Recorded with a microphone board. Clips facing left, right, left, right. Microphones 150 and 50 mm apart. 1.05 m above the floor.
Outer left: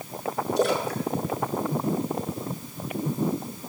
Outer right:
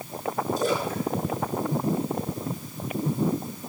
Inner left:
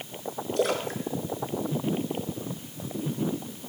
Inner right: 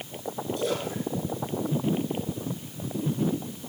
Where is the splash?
70° left (ahead or behind), 2 m.